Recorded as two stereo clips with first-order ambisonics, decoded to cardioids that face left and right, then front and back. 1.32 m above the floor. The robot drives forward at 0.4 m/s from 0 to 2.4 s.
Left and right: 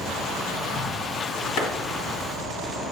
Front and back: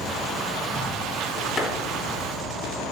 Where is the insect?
115° left, 2 m; by 2.9 s 135° left, 3 m.